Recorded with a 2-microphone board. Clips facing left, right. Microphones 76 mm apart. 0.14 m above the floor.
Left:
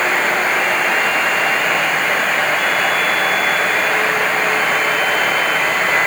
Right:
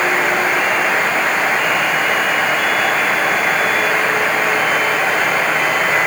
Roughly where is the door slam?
No door slam in this recording.